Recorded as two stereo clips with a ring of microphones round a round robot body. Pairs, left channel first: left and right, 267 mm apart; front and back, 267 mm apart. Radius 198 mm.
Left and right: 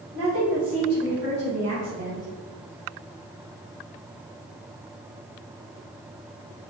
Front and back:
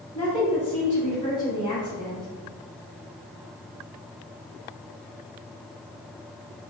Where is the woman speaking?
75° right, 1.9 m; by 2.3 s 85° right, 4 m.